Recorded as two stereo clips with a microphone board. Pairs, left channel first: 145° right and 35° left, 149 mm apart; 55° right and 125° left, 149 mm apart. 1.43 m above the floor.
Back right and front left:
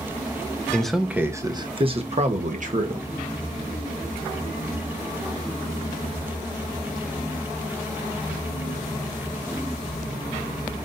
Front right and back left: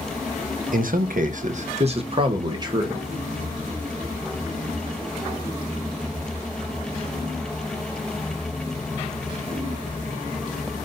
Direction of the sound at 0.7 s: 135° left.